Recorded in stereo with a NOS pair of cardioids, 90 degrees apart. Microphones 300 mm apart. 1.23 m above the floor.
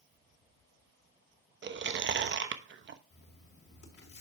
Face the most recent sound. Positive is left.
turn(degrees=50)